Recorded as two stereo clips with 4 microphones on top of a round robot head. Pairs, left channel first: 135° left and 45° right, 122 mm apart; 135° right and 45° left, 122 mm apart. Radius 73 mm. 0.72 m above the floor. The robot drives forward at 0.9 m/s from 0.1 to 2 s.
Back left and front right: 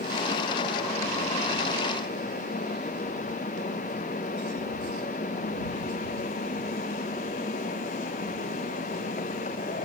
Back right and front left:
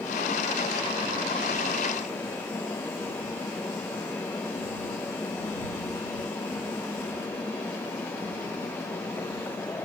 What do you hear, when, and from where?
Only background noise.